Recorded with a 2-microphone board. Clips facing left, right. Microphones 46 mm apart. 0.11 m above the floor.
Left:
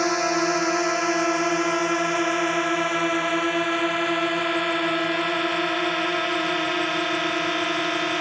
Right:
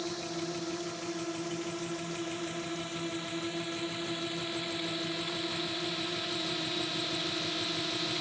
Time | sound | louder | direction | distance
0.0 | a drone | left 15 dB | 75° left (ahead or behind) | ?